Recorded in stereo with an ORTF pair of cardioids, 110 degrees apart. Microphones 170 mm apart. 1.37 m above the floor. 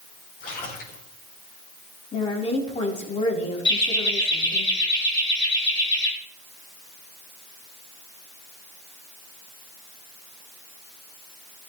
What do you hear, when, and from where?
0.4 s a splash: 65° left, 5 m
2.1 s a woman speaking: 40° left, 4 m
3.6 s laughter: 30° left, 4.5 m